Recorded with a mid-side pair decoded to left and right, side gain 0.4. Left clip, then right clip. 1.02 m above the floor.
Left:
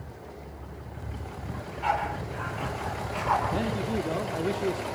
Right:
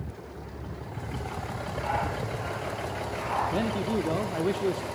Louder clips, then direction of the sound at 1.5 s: Left 3 dB; 60° left.